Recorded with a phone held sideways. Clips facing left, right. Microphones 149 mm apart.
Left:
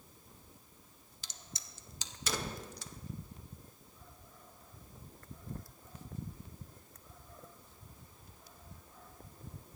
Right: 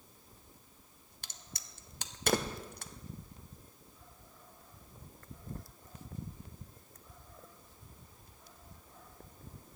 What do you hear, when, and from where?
1.2 s a crack: 55° right (ahead or behind), 0.8 m